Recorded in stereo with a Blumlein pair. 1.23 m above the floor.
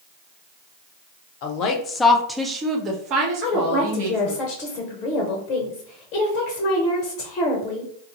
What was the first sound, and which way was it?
A woman speaking, 45° left.